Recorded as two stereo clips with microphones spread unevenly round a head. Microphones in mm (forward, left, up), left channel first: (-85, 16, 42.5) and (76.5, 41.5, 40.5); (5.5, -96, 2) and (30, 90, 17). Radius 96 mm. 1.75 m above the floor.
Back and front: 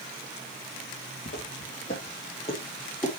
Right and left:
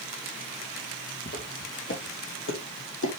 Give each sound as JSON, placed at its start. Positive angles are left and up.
{"t": 1.3, "sound": "footsteps", "azimuth_deg": -140, "distance_m": 3.0}